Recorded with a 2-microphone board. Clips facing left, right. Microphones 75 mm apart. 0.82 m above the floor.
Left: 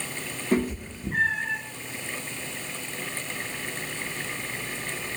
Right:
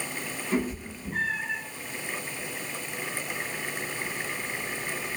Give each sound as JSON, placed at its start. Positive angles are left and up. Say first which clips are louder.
{"t": 0.5, "sound": "a cat meowing", "louder": "left 4 dB", "side_deg": 65, "distance_m": 1.6}